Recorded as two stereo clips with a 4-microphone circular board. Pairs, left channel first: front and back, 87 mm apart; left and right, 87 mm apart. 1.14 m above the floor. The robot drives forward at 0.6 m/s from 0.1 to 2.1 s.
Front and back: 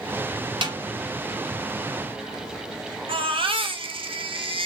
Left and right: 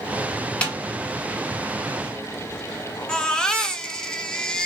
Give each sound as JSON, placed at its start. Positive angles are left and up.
{"t": 0.6, "sound": "a snare drum", "azimuth_deg": 165, "distance_m": 1.8}
{"t": 3.1, "sound": "a baby crying", "azimuth_deg": 170, "distance_m": 0.8}